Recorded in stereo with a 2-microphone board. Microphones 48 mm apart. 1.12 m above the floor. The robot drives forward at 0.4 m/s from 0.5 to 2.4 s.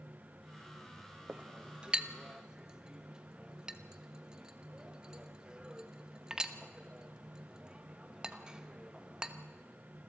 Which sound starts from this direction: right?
A clink, at 1.3 s.